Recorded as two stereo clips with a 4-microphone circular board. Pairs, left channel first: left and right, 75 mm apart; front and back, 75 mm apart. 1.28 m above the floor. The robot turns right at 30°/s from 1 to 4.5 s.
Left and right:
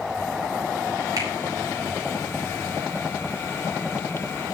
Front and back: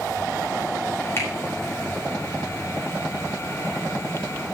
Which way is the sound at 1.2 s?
55° right.